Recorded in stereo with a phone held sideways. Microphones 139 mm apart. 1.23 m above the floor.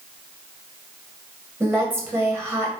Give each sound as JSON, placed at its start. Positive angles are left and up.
{"t": 1.6, "sound": "a woman speaking", "side_deg": -15, "distance_m": 1.2}